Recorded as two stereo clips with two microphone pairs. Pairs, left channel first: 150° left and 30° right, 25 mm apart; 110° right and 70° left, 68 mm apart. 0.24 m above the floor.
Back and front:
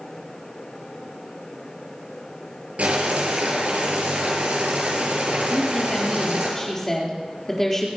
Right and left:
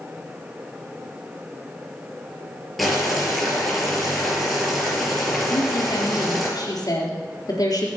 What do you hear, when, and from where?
2.8 s boiling: 20° right, 5.5 m
5.5 s a woman speaking: 140° right, 4 m